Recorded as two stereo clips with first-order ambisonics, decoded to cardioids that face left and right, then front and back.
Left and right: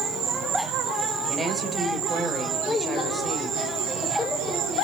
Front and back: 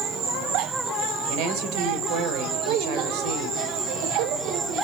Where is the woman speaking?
175° right, 2.5 m.